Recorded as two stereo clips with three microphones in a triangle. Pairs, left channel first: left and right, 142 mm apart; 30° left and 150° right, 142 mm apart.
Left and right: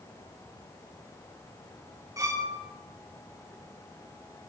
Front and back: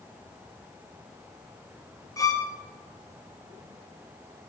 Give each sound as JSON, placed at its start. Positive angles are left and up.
{"t": 2.2, "sound": "a violin", "azimuth_deg": -30, "distance_m": 0.7}